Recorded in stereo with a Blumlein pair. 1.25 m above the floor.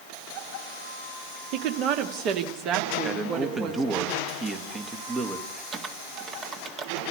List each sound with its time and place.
1.5 s a woman speaking: 40° right, 1.8 m; by 4.0 s 35° right, 3.5 m
3.0 s a man speaking: 20° right, 1.7 m
5.7 s typing on a keyboard: 25° right, 1.8 m